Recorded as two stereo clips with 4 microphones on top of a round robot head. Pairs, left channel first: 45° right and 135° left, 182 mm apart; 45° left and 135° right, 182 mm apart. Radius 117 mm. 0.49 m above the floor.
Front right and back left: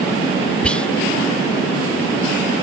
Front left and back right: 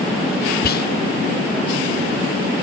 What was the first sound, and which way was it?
Whispering, 40° left.